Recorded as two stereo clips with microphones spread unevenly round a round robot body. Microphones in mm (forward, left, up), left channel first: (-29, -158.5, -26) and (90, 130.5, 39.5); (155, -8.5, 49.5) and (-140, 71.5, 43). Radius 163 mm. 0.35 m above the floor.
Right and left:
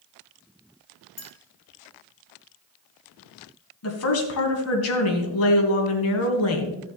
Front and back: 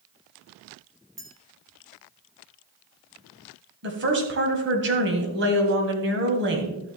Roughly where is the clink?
Behind right.